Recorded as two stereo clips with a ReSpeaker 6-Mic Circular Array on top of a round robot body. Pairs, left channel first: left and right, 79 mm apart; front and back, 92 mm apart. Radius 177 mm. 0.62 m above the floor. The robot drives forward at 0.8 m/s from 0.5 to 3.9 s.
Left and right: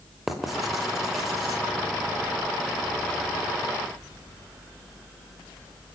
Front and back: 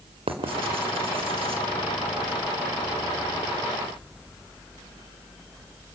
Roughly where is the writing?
Behind.